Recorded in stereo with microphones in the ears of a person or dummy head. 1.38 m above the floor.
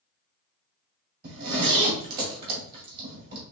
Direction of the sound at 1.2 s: 60° right (ahead or behind).